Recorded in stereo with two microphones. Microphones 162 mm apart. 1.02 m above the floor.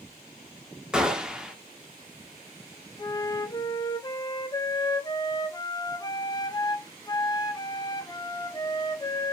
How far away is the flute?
About 0.9 m.